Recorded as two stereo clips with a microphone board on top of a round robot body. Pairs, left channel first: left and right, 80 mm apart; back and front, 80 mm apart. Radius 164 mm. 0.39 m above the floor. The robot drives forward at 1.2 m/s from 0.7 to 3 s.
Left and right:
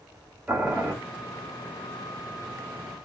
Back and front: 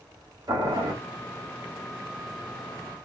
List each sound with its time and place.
0.5 s boiling: 15° right, 2.5 m; by 0.9 s 20° right, 2.5 m